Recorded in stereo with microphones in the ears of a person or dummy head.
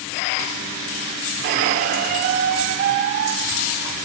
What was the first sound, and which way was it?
A squeak, 50° right (ahead or behind).